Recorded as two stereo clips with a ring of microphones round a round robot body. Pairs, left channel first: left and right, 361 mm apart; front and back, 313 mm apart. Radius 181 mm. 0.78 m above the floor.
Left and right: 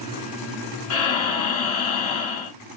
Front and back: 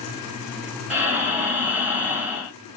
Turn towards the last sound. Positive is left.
turn(degrees=95)